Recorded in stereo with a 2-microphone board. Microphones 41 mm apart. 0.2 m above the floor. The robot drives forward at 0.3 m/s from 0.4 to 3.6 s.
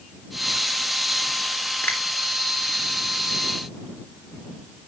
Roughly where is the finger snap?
Left.